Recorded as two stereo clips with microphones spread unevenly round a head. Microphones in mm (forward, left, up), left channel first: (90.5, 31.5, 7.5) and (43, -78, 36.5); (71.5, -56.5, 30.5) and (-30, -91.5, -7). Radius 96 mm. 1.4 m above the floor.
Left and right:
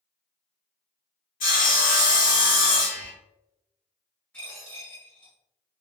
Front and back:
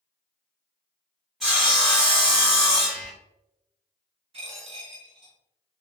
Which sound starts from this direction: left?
Sawing, at 1.4 s.